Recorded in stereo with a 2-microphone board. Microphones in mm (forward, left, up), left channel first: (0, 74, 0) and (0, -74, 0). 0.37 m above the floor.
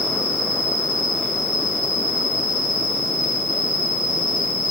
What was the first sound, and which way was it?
An insect, centre (ahead or behind).